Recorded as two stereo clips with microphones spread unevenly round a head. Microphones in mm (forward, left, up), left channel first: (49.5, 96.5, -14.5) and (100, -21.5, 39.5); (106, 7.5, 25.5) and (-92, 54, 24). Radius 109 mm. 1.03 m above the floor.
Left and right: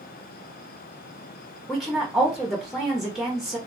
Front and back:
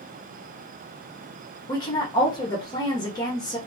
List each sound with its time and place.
1.7 s a woman speaking: 50° left, 0.7 m